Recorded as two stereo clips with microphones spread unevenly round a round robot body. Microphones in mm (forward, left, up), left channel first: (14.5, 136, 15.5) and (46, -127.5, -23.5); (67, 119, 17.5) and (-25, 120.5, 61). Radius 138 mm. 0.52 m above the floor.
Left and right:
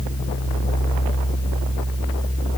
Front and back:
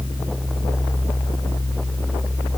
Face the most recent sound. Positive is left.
No sound to turn to.